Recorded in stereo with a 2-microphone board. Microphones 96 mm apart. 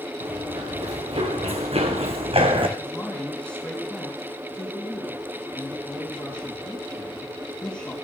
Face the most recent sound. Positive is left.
turn(degrees=15)  # may be behind; listen again after turning